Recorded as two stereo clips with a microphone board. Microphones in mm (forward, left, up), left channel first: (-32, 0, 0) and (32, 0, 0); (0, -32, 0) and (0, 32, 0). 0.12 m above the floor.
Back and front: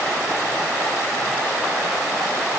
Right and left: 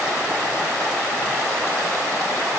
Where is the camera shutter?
No camera shutter in this recording.